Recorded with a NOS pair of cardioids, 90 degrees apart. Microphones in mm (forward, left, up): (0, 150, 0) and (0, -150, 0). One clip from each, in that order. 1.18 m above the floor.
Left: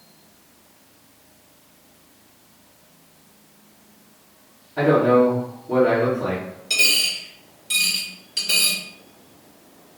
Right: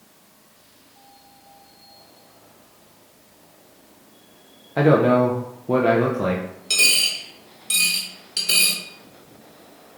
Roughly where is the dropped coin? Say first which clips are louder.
Even; ahead right.